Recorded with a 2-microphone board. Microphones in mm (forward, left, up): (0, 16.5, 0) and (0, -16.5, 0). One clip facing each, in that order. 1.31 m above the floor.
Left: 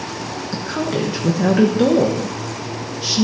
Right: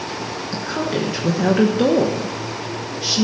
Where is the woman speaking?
5° right (ahead or behind), 1.2 m.